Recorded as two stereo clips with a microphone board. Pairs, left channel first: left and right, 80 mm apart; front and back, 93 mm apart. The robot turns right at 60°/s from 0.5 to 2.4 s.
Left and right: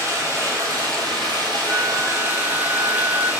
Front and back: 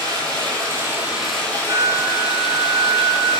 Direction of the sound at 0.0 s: 140° right.